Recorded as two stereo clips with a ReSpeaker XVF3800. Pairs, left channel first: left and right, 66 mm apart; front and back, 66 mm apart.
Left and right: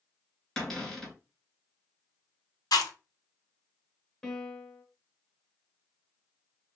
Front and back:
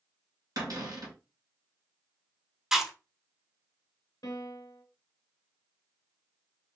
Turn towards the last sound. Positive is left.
turn(degrees=10)